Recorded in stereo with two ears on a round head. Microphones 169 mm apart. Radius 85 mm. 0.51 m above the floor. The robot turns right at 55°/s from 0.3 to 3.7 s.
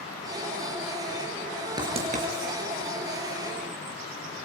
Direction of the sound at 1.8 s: 20° right (ahead or behind).